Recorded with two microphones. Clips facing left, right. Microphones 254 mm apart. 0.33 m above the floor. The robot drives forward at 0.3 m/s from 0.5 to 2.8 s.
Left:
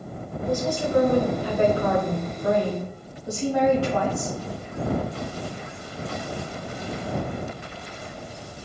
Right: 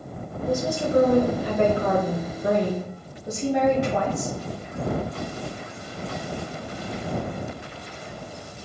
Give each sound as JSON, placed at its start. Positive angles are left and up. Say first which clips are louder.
{"t": 0.5, "sound": "a woman speaking", "louder": "right 1 dB", "side_deg": -25, "distance_m": 1.3}